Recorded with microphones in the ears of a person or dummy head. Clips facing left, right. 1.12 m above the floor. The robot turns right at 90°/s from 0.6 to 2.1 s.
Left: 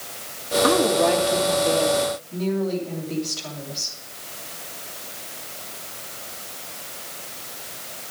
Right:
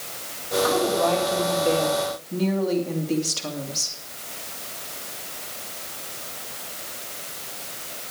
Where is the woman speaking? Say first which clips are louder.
Left 3 dB; 115° left, 2 m; by 4.0 s 115° right, 2 m.